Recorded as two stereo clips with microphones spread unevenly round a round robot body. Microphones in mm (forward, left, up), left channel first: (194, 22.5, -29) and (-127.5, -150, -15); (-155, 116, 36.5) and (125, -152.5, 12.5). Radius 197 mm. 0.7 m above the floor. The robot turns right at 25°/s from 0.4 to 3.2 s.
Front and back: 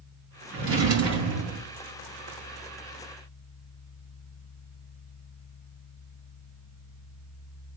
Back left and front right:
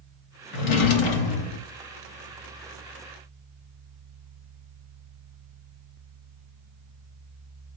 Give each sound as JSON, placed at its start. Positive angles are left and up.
{"t": 0.5, "sound": "a drawer", "azimuth_deg": 140, "distance_m": 0.7}